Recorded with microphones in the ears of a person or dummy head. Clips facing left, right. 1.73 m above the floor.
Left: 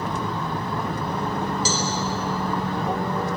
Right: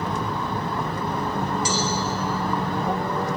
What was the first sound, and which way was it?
A cowbell, 30° left (ahead or behind).